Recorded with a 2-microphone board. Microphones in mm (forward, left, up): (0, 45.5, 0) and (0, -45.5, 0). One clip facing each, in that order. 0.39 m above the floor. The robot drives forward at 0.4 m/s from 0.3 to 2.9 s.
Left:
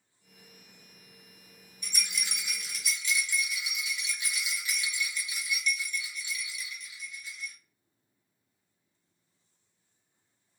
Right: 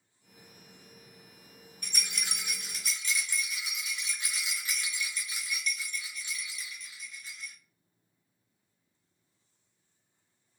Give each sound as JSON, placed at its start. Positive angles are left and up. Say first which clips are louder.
{"t": 1.8, "sound": "a rattle", "louder": "left 1 dB", "side_deg": -55, "distance_m": 1.4}